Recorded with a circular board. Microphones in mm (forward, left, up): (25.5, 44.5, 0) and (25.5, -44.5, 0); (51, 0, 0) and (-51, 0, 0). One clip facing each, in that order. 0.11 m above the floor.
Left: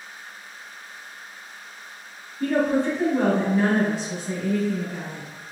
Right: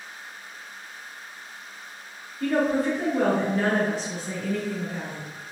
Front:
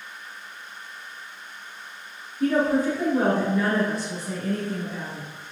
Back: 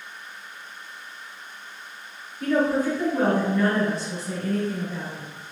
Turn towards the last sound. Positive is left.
turn(degrees=-165)